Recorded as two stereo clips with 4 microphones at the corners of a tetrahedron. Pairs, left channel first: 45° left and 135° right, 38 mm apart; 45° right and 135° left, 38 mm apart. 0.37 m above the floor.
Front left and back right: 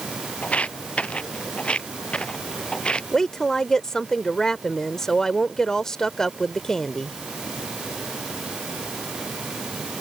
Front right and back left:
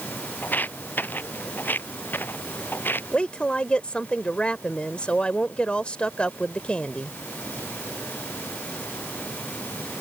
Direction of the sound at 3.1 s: 20° right.